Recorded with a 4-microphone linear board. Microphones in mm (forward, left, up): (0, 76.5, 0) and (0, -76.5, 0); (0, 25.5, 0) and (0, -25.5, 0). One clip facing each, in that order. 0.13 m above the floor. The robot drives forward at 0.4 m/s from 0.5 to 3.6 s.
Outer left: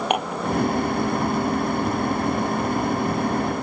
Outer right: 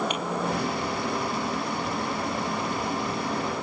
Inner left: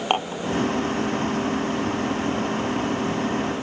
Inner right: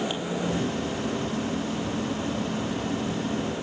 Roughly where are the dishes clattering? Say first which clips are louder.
Outer left 5 dB, inner left 5 dB; left.